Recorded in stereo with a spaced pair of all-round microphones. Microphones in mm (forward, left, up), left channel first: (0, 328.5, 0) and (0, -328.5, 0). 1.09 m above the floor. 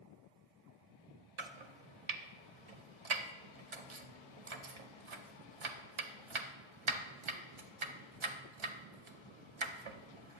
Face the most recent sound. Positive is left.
turn(degrees=-50)  # may be behind; listen again after turning